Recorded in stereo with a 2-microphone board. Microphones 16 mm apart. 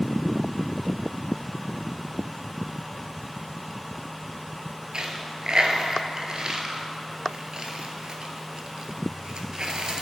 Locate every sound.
4.9 s a dropped coin: 55° right (ahead or behind), 0.7 m